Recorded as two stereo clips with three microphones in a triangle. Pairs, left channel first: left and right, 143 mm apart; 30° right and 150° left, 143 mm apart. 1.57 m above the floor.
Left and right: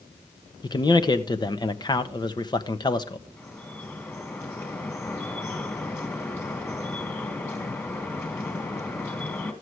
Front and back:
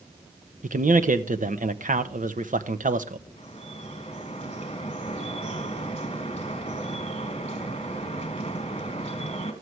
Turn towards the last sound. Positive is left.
turn(degrees=15)